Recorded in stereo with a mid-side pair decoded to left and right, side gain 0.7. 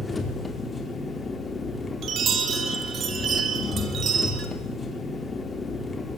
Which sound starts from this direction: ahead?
An engine running, at 0.0 s.